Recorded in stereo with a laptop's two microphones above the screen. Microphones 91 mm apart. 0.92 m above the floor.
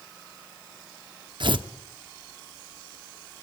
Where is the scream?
I don't hear a scream.